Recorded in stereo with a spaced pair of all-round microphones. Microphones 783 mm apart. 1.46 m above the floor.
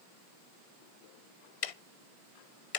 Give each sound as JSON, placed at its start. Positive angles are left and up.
{"t": 1.6, "sound": "ticking", "side_deg": 50, "distance_m": 0.6}